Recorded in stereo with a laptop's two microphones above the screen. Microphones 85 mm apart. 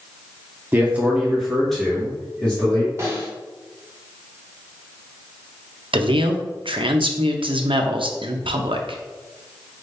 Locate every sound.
0.7 s a man speaking: 25° right (ahead or behind), 0.8 m; by 2.9 s 15° left (ahead or behind), 2 m
3.0 s a snare drum: 30° right (ahead or behind), 1.3 m
5.9 s a man speaking: 80° right, 0.6 m